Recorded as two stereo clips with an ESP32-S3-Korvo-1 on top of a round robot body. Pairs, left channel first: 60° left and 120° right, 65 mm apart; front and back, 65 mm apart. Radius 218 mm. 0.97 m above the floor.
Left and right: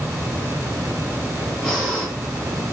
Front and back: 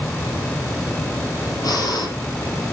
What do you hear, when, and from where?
1.6 s breathing: 20° right, 5 m